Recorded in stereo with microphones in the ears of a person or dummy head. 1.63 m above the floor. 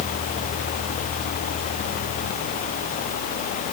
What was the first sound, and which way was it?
Only background noise.